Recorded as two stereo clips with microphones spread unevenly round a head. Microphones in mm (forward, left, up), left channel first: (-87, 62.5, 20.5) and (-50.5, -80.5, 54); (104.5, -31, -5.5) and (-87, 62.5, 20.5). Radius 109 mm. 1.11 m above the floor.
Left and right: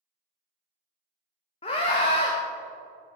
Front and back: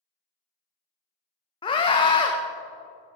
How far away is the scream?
About 0.5 m.